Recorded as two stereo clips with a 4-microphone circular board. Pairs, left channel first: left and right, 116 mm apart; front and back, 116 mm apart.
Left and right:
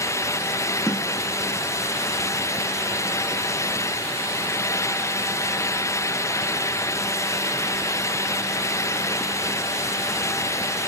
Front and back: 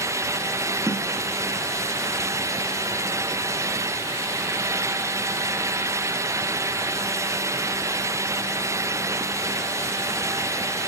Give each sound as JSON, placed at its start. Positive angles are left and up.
{"t": 0.9, "sound": "a snare drum", "azimuth_deg": -160, "distance_m": 0.7}